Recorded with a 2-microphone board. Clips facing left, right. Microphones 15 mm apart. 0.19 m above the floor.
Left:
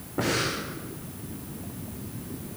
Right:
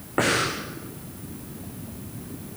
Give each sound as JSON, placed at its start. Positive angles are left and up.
{"t": 0.2, "sound": "breathing", "side_deg": -80, "distance_m": 5.0}